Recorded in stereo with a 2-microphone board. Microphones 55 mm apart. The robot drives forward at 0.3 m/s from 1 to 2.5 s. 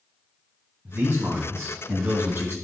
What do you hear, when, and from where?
0.8 s a man speaking: 45° right (ahead or behind), 3 m; by 2.5 s 50° right (ahead or behind), 3 m